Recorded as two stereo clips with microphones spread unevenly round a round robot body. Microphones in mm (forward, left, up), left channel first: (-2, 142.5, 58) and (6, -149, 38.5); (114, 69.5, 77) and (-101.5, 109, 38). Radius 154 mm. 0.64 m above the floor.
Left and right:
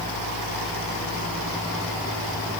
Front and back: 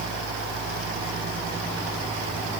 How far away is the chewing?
No chewing in this recording.